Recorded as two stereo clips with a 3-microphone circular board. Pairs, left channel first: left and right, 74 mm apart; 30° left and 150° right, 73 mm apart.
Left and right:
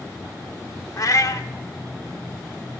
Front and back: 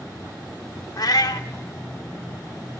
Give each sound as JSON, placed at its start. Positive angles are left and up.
{"t": 1.0, "sound": "a cat meowing", "azimuth_deg": 55, "distance_m": 0.5}